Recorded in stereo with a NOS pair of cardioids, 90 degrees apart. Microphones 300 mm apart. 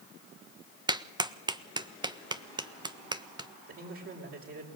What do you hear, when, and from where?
0.9 s a clap: 15° right, 1.4 m
3.7 s a man speaking: 45° right, 6 m